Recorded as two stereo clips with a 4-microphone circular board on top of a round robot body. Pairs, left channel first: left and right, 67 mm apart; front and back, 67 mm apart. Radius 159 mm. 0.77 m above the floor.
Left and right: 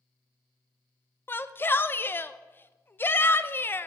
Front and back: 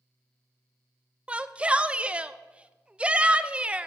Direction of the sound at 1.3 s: 115° left.